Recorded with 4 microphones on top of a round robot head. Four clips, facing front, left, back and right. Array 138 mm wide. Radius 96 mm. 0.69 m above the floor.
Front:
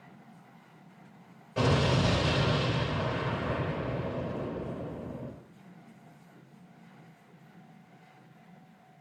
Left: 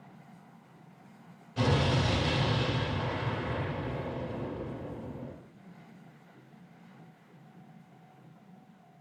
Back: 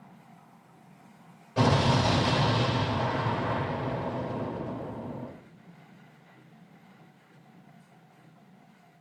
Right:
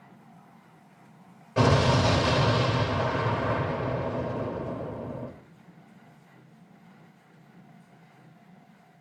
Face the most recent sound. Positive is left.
turn(degrees=-95)